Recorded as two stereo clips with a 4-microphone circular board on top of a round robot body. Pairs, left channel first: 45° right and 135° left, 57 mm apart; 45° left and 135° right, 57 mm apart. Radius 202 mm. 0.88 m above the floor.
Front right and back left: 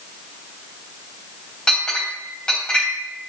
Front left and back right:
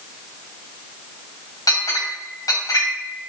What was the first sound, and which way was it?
A clink, 35° left.